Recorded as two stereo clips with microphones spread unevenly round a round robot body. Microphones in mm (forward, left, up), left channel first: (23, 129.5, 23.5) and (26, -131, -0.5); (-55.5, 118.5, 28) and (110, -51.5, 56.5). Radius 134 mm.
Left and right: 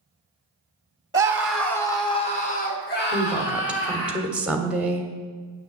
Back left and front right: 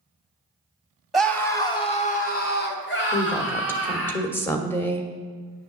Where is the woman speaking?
165° right, 1.4 m.